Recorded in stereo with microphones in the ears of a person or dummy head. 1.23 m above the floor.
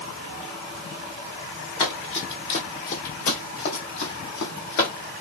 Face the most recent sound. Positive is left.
turn(degrees=65)  # may be behind; listen again after turning